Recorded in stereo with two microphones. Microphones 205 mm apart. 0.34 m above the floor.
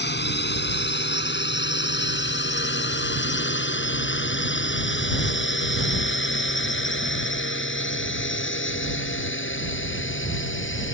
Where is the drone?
60° left (ahead or behind); by 10.9 s 75° left (ahead or behind).